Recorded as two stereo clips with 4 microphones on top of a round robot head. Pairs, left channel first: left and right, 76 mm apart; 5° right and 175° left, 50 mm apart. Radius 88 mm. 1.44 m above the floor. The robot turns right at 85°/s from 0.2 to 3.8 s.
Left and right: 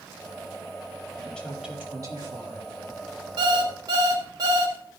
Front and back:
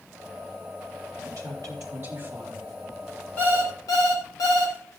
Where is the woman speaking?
170° left, 4 m; by 2.8 s 75° right, 4 m.